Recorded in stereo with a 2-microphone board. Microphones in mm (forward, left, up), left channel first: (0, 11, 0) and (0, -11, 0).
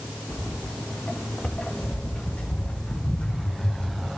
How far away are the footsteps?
About 4.5 m.